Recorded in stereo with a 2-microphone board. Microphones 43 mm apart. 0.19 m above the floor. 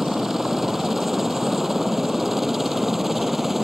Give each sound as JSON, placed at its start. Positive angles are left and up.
{"t": 0.0, "sound": "a helicopter", "side_deg": -10}